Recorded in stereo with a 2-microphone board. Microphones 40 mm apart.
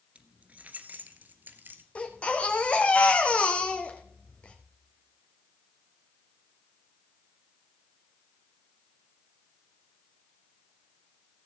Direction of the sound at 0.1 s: 30° right (ahead or behind).